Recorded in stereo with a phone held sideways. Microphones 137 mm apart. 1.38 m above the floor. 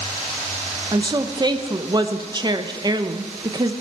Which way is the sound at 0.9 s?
30° right (ahead or behind).